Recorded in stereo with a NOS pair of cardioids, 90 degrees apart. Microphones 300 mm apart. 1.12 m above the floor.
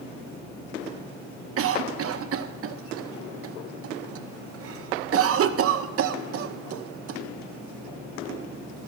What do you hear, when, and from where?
1.6 s a cough: 50° right, 0.9 m